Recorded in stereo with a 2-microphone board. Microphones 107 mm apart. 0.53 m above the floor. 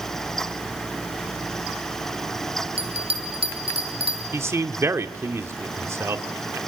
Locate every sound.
2.8 s a bell: 60° right (ahead or behind), 5 m
4.3 s a man speaking: 25° right (ahead or behind), 1.3 m